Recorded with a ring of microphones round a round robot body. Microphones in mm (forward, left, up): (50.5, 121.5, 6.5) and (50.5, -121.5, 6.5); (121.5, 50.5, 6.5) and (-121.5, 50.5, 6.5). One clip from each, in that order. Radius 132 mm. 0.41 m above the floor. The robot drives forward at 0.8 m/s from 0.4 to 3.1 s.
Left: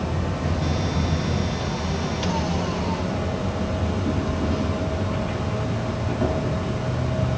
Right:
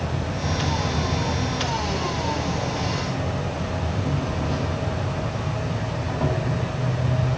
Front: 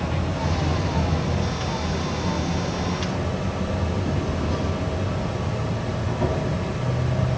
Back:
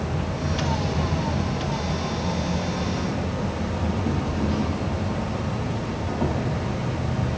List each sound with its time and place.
0.0 s an insect: 80° right, 4 m; by 7.4 s 110° right, 4 m